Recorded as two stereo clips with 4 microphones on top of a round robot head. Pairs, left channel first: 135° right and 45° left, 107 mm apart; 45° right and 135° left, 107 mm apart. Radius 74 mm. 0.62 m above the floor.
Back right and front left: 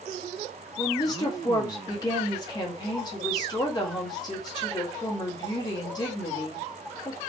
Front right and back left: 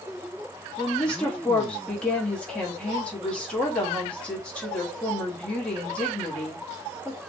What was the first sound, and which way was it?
A woman speaking, 115° right.